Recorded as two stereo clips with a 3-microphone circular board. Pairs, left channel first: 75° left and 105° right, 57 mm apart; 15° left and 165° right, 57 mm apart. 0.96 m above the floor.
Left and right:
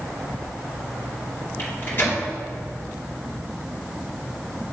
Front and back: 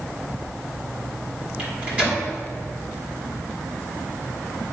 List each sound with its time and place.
1.6 s a microwave: 130° left, 2.5 m